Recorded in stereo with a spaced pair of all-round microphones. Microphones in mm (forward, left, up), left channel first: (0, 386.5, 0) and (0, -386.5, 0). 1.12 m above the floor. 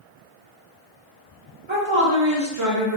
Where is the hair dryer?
No hair dryer in this recording.